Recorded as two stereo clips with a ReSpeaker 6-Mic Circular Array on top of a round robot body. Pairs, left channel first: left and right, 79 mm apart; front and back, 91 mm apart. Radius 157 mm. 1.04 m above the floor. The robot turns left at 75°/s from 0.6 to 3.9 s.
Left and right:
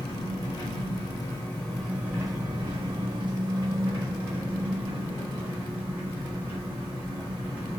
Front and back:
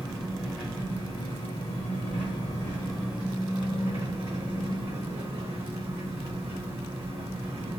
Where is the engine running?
90° left, 1.4 m; by 7.8 s 155° right, 1.4 m.